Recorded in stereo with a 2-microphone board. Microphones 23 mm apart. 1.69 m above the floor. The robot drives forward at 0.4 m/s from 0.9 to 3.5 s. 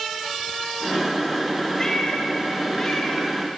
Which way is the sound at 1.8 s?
30° left (ahead or behind).